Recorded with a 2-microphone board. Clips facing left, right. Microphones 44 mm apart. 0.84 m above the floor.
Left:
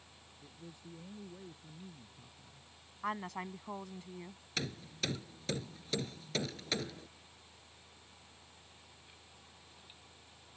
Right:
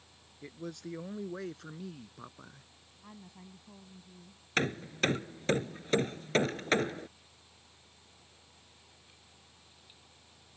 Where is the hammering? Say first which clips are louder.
Right 9 dB; 45° right (ahead or behind).